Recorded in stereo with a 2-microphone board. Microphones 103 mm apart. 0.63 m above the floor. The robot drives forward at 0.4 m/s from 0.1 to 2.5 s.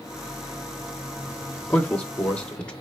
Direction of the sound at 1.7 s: 15° left (ahead or behind).